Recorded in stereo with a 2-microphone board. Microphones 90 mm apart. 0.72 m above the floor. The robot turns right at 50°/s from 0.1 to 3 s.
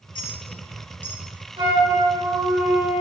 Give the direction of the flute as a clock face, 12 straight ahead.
3 o'clock.